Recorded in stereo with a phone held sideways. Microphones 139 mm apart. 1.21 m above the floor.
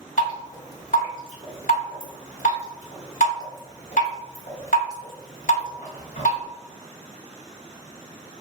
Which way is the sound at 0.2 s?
75° left (ahead or behind).